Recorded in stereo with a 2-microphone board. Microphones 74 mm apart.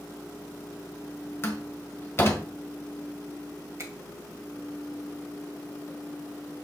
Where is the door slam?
35° left (ahead or behind), 1.7 m.